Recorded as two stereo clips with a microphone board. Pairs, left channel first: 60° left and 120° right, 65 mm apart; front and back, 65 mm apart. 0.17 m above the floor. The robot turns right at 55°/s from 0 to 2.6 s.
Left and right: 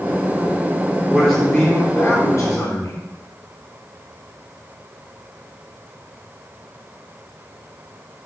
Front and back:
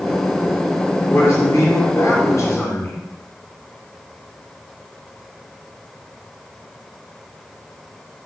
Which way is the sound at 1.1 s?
50° right.